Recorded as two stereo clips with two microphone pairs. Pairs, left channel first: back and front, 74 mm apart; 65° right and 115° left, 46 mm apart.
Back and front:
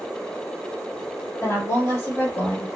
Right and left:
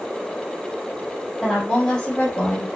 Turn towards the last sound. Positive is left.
turn(degrees=-120)